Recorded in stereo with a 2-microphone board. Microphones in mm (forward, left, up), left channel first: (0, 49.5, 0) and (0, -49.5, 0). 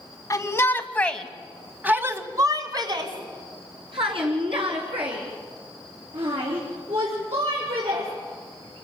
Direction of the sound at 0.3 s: 30° left (ahead or behind).